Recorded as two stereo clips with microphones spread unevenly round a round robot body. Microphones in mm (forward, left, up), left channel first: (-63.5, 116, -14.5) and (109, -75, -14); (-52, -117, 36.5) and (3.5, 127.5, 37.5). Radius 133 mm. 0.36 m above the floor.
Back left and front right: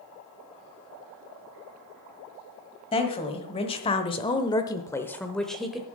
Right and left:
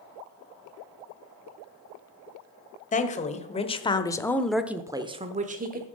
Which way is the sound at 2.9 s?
160° right.